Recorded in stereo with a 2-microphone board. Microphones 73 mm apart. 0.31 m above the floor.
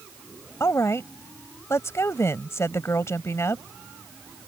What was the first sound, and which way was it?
A woman speaking, 45° left (ahead or behind).